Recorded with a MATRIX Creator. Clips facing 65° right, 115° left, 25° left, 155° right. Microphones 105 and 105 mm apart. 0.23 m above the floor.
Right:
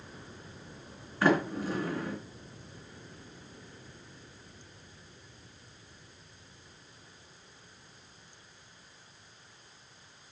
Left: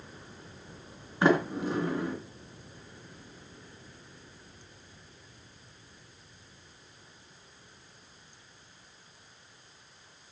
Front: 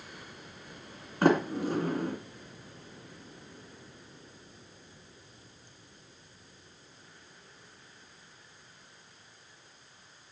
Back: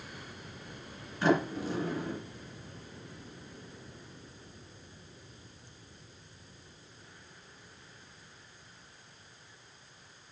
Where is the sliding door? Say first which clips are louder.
Left 2 dB, front 3 dB; 45° left, 2 m.